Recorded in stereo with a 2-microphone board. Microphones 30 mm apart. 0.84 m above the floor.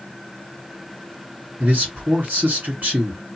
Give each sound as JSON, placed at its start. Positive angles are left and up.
{"t": 1.6, "sound": "a man speaking", "side_deg": -70, "distance_m": 2.0}